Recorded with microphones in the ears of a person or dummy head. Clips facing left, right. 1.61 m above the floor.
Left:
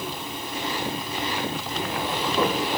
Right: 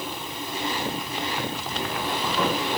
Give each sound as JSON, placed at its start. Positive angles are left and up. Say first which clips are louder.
{"t": 1.7, "sound": "footsteps", "louder": "left 1 dB", "side_deg": 30, "distance_m": 8.5}